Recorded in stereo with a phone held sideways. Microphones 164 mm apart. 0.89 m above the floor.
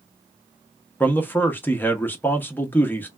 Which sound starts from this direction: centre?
A man speaking, at 1.0 s.